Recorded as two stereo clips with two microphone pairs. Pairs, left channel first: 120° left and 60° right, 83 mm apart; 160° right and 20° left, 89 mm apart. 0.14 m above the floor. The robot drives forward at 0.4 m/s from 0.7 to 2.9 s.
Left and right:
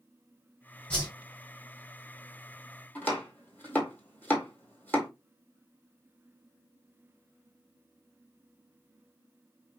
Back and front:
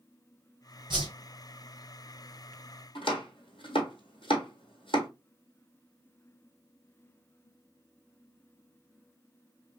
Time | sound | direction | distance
0.9 | a whoosh | 50° left | 1.5 m
3.0 | chopping | 165° right | 1.6 m